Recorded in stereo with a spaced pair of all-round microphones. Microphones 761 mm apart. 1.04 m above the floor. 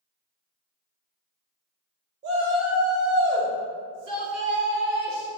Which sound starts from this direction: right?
A shout, at 2.2 s.